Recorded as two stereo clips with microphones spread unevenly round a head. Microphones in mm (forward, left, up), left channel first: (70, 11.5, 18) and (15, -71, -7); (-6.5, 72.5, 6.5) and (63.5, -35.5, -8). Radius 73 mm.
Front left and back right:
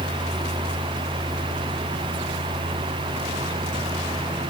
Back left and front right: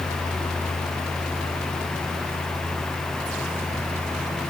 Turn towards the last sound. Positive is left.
No sound to turn to.